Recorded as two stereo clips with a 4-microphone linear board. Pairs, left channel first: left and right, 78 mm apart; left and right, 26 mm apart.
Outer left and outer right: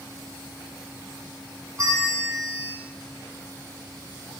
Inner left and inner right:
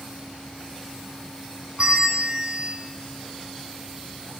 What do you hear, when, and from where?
1.8 s a bell: 40° right (ahead or behind), 3 m